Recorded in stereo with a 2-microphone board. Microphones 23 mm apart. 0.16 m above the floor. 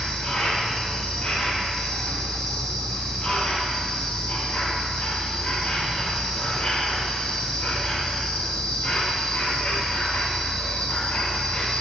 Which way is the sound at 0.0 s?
60° left (ahead or behind).